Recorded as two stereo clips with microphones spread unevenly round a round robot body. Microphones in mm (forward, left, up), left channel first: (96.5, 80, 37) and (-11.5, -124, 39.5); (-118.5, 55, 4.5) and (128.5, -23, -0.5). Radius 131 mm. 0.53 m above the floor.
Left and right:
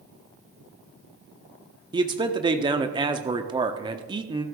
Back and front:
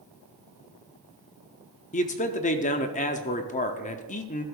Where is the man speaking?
170° right, 0.8 m.